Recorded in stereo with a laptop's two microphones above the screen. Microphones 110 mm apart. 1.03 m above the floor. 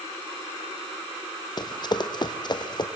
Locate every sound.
1.6 s running footsteps: 40° left (ahead or behind), 1.8 m